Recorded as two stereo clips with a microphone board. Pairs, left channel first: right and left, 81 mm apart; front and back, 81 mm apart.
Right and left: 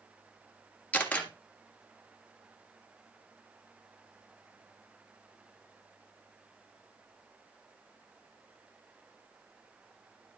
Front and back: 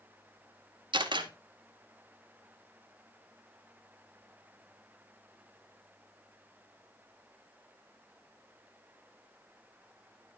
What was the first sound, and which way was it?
A camera shutter, 165° right.